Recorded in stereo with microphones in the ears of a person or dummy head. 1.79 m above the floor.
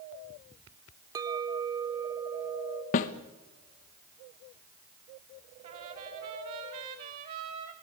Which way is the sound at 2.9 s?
45° left (ahead or behind).